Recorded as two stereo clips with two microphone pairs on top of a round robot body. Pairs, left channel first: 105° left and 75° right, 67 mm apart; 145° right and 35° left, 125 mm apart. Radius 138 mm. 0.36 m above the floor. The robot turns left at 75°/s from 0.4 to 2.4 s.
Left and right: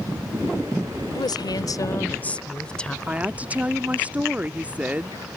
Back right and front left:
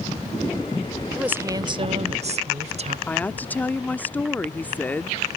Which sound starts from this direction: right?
A woman speaking, at 3.1 s.